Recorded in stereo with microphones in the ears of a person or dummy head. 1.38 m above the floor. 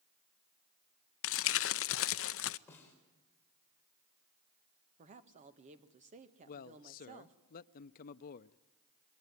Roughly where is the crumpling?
Left.